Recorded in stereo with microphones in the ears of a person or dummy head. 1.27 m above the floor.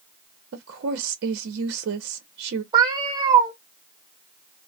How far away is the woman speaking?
About 0.7 m.